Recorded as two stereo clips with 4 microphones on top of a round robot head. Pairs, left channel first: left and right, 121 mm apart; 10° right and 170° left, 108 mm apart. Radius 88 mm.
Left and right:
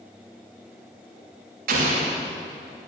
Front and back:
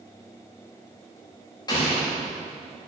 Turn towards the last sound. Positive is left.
turn(degrees=-75)